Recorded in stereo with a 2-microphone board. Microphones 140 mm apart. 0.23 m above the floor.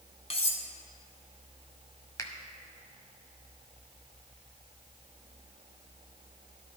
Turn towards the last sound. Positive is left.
turn(degrees=20)  # may be behind; listen again after turning